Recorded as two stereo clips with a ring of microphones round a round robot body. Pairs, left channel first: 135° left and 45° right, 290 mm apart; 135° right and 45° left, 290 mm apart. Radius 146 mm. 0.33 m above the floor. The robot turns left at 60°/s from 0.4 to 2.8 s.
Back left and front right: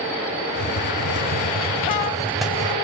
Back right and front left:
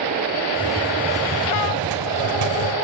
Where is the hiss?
155° left, 2 m; by 2.8 s 25° left, 2 m.